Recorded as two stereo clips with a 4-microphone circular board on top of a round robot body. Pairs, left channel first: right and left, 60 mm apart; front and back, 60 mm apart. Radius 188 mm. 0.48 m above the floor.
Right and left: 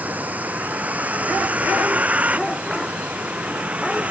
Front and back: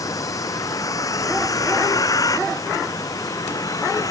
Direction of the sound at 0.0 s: 25° left.